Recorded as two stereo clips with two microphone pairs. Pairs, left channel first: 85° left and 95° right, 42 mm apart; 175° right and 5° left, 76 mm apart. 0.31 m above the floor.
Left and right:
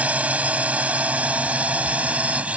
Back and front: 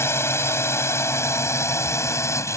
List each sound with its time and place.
0.0 s a drone: 135° right; by 2.6 s 140° right